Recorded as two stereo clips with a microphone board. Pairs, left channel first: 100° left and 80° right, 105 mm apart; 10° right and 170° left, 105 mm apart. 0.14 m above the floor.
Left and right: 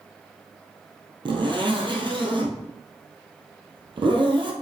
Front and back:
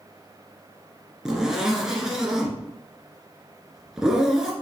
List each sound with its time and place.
1.2 s a zipper: 105° right, 1.6 m